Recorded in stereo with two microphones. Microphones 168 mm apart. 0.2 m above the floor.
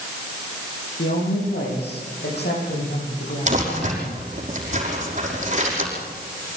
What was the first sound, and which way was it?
A woman speaking, 80° left.